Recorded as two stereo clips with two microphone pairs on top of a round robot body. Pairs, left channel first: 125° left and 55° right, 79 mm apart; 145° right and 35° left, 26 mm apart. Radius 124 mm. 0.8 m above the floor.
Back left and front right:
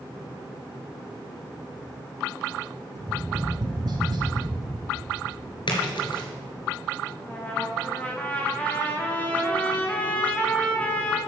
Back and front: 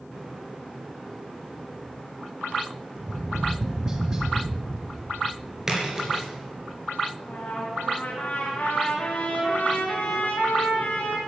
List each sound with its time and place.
3.0 s tapping: 25° right, 2.5 m
5.7 s a splash: 105° left, 3.5 m
7.2 s a trumpet: 165° right, 2.5 m